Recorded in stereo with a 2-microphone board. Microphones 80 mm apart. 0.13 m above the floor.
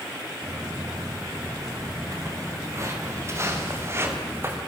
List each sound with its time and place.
0.4 s footsteps: 45° right (ahead or behind), 7.5 m; by 4.6 s 30° right (ahead or behind), 5.5 m